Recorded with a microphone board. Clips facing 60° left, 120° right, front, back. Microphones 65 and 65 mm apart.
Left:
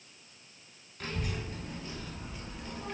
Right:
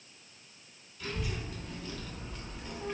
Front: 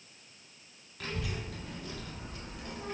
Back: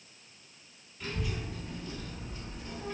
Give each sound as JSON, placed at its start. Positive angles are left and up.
{"t": 1.0, "sound": "a child speaking", "azimuth_deg": 20, "distance_m": 1.0}